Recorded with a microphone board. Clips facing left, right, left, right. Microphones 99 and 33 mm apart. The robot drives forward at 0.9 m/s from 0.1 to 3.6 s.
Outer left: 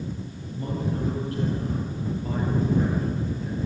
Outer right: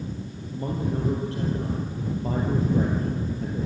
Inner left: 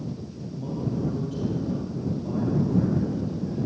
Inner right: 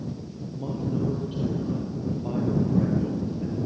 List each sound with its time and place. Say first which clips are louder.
0.5 s a man speaking: outer right 1 dB, inner right 1 dB; 25° right (ahead or behind), 4.5 m; by 3.7 s 50° right (ahead or behind), 2.5 m